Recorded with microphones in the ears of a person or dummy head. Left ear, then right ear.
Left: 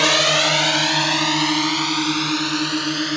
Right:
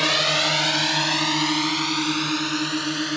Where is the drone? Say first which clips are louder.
Left 4 dB; 20° left (ahead or behind); by 3.2 s 5° left (ahead or behind).